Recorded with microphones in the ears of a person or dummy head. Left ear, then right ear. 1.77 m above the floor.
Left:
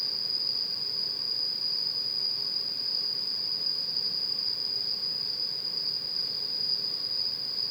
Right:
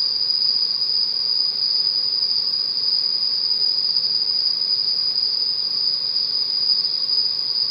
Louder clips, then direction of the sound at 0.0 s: Right 10 dB; 70° right (ahead or behind).